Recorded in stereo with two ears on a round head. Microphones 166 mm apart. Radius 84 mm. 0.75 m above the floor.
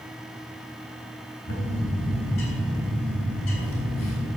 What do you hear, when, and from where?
1.5 s a bird: 80° left, 3 m